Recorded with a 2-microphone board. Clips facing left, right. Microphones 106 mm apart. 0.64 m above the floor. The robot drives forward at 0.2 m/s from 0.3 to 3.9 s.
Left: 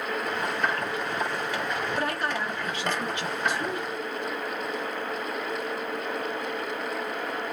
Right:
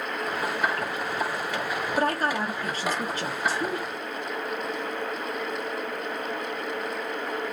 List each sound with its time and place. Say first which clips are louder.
2.0 s a woman speaking: right 3 dB; 35° right (ahead or behind), 0.7 m